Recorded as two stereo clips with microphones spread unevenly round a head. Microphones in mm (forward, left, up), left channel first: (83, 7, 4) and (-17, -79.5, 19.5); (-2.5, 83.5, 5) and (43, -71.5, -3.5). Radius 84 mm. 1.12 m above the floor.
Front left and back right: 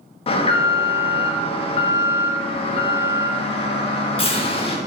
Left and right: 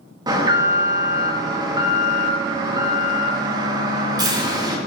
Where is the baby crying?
I don't hear a baby crying.